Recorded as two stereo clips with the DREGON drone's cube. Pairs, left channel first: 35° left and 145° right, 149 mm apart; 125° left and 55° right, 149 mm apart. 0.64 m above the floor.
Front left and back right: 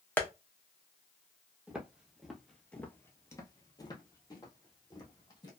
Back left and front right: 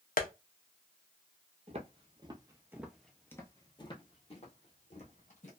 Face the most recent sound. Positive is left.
turn(degrees=95)